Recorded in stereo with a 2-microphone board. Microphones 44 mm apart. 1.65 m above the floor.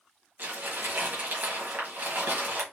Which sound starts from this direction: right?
Crumpling, at 0.4 s.